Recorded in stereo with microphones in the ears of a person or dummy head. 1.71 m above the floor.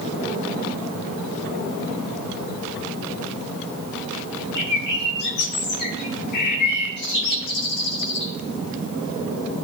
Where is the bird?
55° left (ahead or behind), 1.8 m.